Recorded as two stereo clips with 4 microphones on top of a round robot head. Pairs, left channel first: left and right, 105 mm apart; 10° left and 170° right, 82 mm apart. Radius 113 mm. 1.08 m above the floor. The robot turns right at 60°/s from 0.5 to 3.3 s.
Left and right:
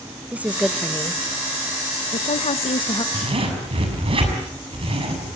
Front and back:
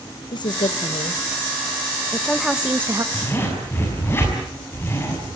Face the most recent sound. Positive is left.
turn(degrees=-55)